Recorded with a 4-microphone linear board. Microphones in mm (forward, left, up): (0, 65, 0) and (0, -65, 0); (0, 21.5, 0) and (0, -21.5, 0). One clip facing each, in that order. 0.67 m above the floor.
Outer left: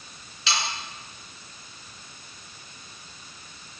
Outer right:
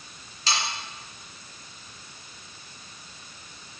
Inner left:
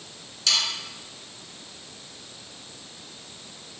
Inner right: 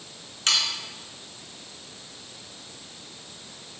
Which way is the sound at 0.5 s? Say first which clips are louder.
Even, inner right 1 dB; 40° right (ahead or behind).